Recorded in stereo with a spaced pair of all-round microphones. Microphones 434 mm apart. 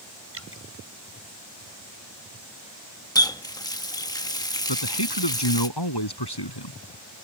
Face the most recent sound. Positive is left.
turn(degrees=65)  # may be behind; listen again after turning